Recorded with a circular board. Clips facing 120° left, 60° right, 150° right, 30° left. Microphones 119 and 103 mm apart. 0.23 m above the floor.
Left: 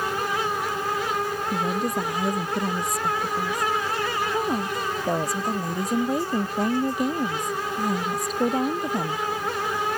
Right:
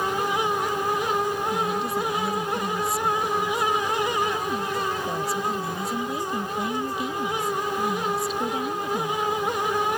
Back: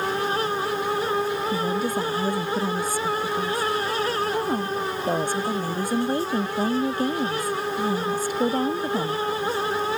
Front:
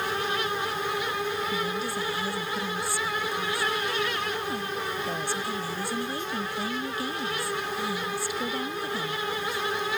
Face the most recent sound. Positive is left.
turn(degrees=165)